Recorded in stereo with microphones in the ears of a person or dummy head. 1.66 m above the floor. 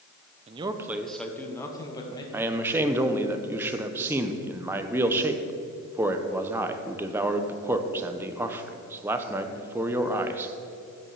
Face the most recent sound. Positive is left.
turn(degrees=-20)  # may be behind; listen again after turning